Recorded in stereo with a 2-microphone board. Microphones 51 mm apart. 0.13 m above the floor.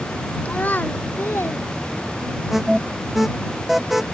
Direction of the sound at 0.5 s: 25° left (ahead or behind).